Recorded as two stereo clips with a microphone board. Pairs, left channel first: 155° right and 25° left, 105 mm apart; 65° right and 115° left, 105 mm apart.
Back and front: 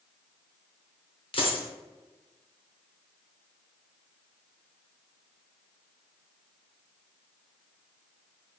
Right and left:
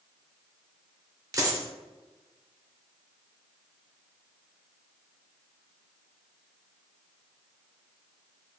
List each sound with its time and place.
1.3 s a dropped coin: 170° left, 0.6 m